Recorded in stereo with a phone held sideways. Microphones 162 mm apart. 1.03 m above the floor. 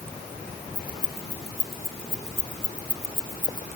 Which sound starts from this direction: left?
Keys jangling, at 0.8 s.